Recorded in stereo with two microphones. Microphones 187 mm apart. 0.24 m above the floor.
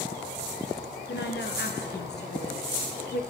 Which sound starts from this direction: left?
A woman speaking, at 1.1 s.